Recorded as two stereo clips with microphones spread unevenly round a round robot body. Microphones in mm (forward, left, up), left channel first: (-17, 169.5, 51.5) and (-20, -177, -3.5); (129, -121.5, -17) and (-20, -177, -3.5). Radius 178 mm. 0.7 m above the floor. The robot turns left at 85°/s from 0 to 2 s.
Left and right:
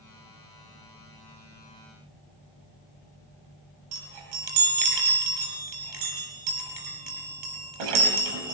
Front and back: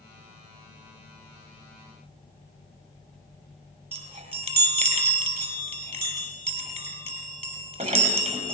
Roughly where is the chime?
Right.